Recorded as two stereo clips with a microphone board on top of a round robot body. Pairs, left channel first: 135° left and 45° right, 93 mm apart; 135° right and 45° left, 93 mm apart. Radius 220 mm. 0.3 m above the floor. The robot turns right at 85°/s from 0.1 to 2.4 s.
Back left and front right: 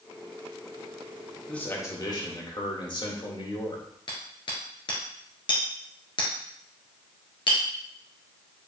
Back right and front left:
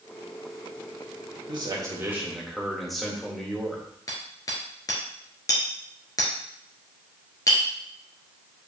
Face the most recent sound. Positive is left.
turn(degrees=170)